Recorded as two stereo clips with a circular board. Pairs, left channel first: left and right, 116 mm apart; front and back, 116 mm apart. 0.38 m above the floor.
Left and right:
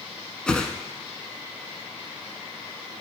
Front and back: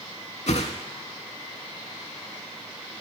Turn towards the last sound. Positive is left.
turn(degrees=10)